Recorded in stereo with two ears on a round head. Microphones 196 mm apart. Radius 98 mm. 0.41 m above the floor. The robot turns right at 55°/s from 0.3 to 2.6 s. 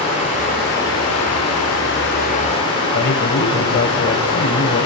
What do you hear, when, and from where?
0.0 s running water: 30° left, 6.5 m; by 4.9 s 155° left, 6.5 m
2.9 s a man speaking: 50° left (ahead or behind), 1.6 m